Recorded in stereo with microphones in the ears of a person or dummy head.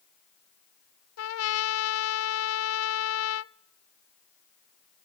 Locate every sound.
1.2 s a trumpet: 85° left, 0.7 m